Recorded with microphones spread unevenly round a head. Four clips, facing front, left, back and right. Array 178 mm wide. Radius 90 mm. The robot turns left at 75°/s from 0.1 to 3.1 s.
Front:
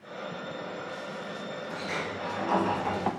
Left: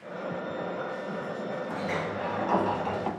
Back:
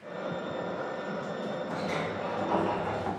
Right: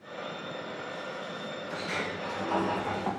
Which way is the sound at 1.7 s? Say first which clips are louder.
Left 1 dB, even; 120° left.